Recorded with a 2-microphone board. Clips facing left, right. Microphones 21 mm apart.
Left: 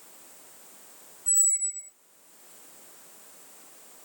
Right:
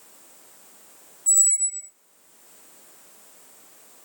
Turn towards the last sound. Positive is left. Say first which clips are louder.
# right 5 dB
turn(degrees=-40)  # may be behind; listen again after turning